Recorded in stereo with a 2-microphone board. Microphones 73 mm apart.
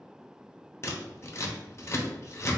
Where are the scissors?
35° left (ahead or behind), 0.8 m.